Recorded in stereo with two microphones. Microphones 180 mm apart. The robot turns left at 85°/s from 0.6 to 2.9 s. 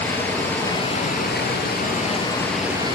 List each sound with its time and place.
0.0 s running water: 170° left, 2.5 m; by 3.0 s 25° right, 2.5 m